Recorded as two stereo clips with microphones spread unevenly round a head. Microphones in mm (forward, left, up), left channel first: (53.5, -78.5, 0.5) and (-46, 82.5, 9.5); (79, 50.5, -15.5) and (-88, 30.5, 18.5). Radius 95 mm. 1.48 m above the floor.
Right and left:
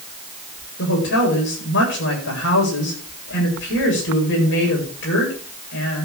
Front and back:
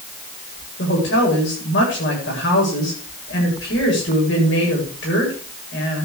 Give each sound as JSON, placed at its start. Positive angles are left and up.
{"t": 0.8, "sound": "a woman speaking", "azimuth_deg": -30, "distance_m": 8.0}